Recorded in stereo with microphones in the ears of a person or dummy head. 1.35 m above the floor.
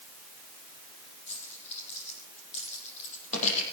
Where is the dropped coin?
40° left (ahead or behind), 5.5 m.